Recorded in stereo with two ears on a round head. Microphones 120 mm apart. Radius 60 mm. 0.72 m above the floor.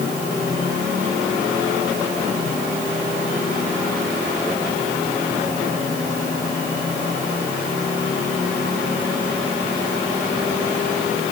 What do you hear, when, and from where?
Only background noise.